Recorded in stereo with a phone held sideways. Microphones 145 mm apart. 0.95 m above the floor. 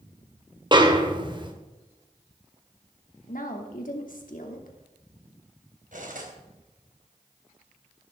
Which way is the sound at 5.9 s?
65° right (ahead or behind).